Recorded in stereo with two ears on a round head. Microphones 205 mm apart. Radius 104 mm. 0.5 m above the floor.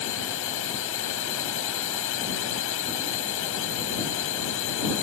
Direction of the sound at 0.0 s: 65° left (ahead or behind).